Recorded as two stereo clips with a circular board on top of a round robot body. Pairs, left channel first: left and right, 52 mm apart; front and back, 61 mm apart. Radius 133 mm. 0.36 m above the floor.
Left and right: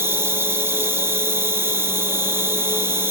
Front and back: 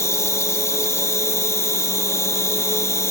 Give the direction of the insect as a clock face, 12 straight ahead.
1 o'clock.